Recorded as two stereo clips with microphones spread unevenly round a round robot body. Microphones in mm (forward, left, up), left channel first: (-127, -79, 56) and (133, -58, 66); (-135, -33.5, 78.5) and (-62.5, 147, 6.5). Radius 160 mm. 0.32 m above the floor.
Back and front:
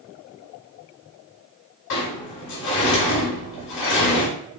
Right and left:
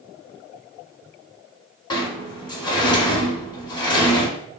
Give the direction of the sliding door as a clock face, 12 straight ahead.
6 o'clock.